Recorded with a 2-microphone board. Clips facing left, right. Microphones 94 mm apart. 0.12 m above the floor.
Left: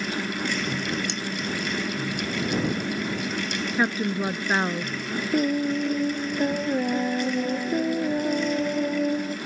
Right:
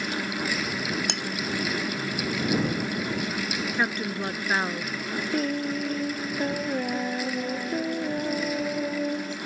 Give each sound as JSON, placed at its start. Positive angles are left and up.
{"t": 1.1, "sound": "cutlery clinking", "side_deg": -60}
{"t": 3.7, "sound": "a woman speaking", "side_deg": 10}
{"t": 5.3, "sound": "singing", "side_deg": 5}